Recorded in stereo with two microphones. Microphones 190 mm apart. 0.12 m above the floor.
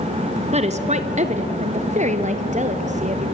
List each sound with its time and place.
0.5 s a woman speaking: 35° right (ahead or behind), 1.3 m; by 3.3 s 40° right (ahead or behind), 2.5 m